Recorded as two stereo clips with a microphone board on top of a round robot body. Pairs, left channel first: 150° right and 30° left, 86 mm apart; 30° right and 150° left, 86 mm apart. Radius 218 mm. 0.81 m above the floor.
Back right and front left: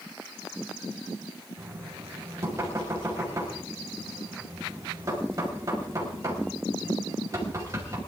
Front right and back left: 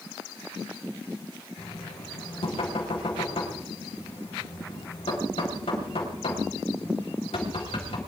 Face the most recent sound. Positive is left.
turn(degrees=-25)